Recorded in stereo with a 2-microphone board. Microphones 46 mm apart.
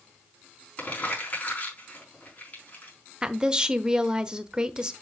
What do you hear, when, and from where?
0.8 s crumpling: 40° left (ahead or behind), 4.5 m
3.2 s a woman speaking: 15° right (ahead or behind), 0.8 m